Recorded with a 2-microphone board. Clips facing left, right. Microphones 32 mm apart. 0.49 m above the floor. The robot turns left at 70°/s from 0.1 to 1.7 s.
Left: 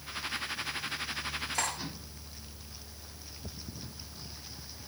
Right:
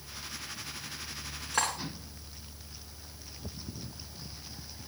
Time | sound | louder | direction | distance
1.5 | cutlery clinking | right 5 dB | 85° right | 3.5 m